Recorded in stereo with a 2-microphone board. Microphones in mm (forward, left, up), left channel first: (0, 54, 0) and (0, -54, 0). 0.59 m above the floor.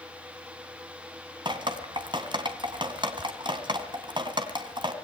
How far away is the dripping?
About 2.5 m.